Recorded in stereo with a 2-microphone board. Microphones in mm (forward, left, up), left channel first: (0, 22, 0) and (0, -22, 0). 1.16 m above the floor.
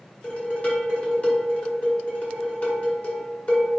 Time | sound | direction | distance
0.2 | dishes clattering | 40° left (ahead or behind) | 1.6 m